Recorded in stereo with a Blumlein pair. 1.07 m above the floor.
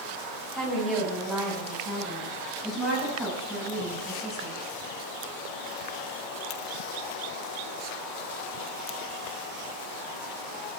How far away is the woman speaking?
About 6 m.